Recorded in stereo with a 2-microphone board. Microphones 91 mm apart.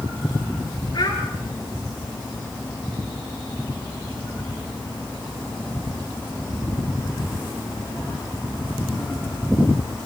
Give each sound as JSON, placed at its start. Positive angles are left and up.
{"t": 0.9, "sound": "a child speaking", "side_deg": 50, "distance_m": 6.0}